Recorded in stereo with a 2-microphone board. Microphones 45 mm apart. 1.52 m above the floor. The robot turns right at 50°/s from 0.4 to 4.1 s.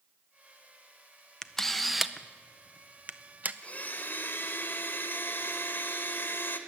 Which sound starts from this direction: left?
A blender, at 3.6 s.